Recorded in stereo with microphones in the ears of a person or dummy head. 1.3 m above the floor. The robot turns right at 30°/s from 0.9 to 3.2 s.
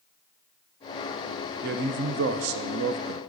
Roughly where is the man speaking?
Behind right.